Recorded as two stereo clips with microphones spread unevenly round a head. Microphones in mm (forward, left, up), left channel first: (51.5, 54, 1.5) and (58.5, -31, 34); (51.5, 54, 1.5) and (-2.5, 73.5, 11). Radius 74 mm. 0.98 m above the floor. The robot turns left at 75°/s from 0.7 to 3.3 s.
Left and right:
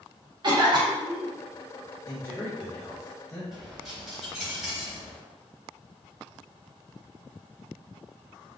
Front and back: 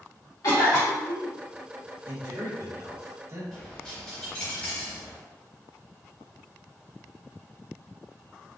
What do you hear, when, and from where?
0.4 s a cough: 45° right, 1.4 m; by 1.3 s 90° right, 1.4 m
2.1 s a man speaking: 140° right, 1.2 m; by 3.4 s 125° left, 1.2 m
3.5 s a dropped coin: 115° right, 0.8 m